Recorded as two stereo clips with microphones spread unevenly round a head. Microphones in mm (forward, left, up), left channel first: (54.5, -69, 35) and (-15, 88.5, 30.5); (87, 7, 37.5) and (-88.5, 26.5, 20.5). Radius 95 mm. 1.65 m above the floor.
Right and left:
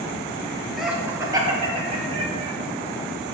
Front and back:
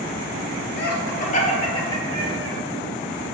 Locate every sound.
0.8 s laughter: 25° left, 1.3 m; by 2.5 s 70° left, 2.5 m